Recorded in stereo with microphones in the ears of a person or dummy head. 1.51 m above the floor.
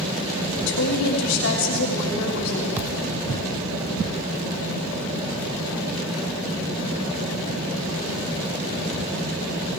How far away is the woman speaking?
About 4 m.